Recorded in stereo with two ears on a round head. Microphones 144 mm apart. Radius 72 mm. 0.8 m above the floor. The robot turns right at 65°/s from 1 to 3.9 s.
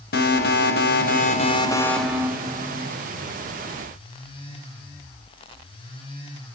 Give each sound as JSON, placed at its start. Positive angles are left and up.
{"t": 0.1, "sound": "an alarm", "azimuth_deg": 110, "distance_m": 2.5}